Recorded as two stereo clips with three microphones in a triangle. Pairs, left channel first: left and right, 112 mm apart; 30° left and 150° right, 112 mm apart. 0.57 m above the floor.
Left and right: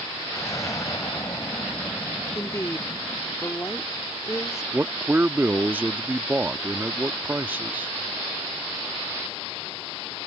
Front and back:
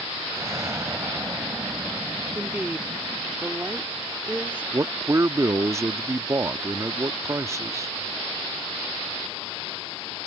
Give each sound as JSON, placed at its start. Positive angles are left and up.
{"t": 0.3, "sound": "an explosion", "azimuth_deg": 150}
{"t": 2.4, "sound": "a woman speaking", "azimuth_deg": 140}
{"t": 4.7, "sound": "a man speaking", "azimuth_deg": -140}